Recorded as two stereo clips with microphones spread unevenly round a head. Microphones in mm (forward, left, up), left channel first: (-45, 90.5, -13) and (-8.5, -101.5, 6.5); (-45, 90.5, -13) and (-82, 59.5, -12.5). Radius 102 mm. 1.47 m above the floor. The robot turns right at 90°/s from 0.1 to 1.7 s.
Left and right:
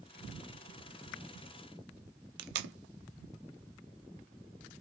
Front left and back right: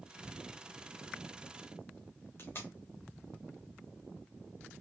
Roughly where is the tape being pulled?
Ahead right.